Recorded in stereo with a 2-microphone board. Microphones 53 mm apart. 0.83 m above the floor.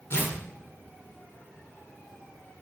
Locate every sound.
0.1 s tearing paper: 50° left (ahead or behind), 1.7 m